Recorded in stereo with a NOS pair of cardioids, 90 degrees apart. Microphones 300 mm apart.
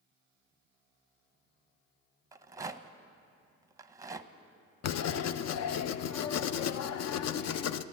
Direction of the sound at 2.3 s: 10° right.